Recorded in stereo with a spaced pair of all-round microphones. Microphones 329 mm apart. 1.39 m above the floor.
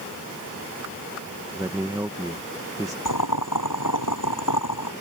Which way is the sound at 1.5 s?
10° right (ahead or behind).